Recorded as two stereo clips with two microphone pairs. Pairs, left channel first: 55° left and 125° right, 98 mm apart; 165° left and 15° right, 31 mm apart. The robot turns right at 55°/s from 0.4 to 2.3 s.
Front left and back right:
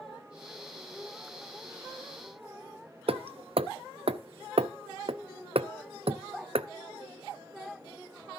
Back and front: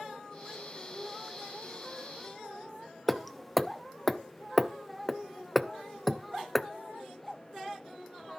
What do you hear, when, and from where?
3.1 s hammering: 110° right, 0.5 m